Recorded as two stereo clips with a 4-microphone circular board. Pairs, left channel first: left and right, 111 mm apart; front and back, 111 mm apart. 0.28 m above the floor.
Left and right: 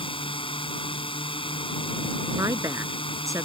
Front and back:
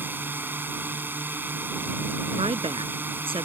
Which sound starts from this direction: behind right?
A woman speaking, at 2.4 s.